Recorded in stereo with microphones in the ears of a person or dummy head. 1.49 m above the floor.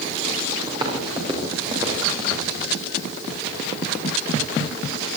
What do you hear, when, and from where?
0.7 s footsteps: 25° right (ahead or behind), 9.5 m; by 2.5 s 30° right (ahead or behind), 8 m